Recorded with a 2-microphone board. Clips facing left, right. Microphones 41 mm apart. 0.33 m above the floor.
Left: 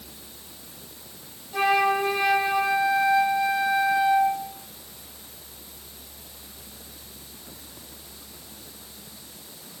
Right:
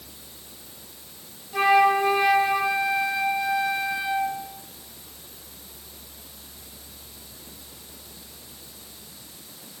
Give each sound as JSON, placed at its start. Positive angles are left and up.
{"t": 1.5, "sound": "a flute", "side_deg": -5, "distance_m": 0.9}